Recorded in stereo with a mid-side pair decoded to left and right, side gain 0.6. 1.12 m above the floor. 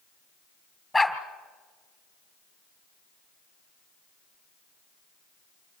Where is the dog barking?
Straight ahead, 2.5 m.